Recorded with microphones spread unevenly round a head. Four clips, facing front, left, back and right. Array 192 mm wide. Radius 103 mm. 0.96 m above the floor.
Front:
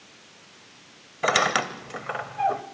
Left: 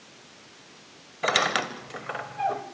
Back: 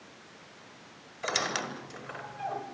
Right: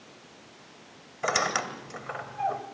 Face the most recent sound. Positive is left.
turn(degrees=30)